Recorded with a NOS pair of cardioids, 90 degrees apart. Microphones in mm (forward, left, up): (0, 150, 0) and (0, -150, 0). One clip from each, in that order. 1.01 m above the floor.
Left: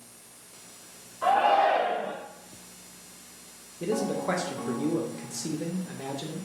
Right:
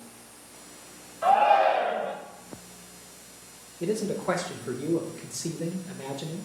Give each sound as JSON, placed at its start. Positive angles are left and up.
{"t": 1.2, "sound": "a shout", "azimuth_deg": 5, "distance_m": 0.7}
{"t": 3.8, "sound": "a man speaking", "azimuth_deg": -5, "distance_m": 0.5}